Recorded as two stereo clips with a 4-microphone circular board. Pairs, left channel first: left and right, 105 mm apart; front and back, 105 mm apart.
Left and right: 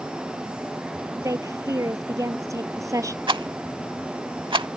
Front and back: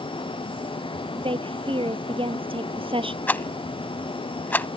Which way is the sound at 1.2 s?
150° right.